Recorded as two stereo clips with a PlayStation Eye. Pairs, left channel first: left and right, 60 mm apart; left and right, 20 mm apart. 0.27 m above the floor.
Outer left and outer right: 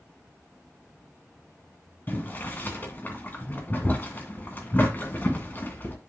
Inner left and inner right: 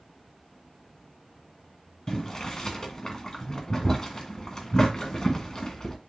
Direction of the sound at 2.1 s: 35° left (ahead or behind).